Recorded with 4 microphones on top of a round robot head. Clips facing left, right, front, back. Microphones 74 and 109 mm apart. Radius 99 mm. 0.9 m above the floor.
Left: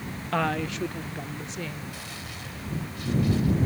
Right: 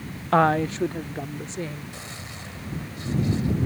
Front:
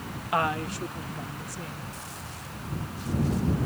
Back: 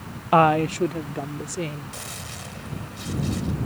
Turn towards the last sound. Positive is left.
turn(degrees=-155)